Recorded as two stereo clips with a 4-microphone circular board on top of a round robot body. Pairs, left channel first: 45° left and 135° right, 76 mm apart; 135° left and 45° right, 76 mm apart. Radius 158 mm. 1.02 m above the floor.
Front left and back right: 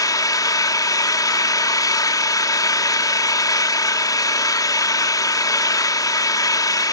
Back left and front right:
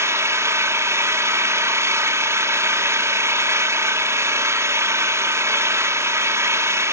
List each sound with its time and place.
0.0 s an engine running: 5° left, 1.4 m